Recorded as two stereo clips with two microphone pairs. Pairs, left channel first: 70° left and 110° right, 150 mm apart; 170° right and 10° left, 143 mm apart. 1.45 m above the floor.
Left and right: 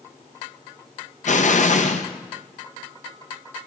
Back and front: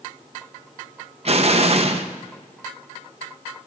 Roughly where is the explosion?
Ahead left.